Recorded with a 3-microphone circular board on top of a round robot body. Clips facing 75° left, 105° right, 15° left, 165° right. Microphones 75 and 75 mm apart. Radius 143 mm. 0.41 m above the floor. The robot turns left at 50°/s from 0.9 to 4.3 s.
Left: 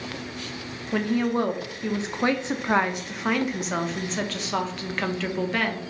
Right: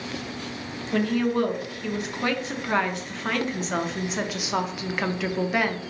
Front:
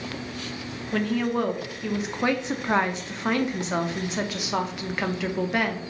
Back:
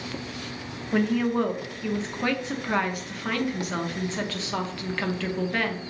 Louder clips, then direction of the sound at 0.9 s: Right 1 dB, back 1 dB; 130° left.